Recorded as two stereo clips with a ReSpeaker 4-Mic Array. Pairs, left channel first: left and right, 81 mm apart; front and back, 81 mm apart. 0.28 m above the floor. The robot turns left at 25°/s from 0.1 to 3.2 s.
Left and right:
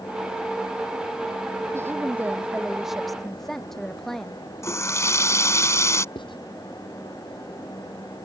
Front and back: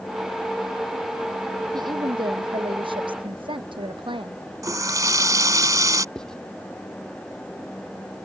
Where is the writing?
85° left.